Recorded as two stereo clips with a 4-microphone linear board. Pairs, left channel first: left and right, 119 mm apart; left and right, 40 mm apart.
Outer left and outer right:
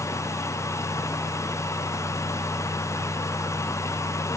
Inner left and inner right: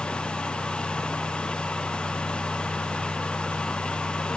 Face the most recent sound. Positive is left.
No sound to turn to.